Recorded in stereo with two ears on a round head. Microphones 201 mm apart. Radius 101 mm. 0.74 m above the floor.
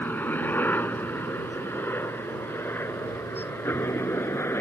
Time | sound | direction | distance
0.0 | a helicopter | 10° left (ahead or behind) | ?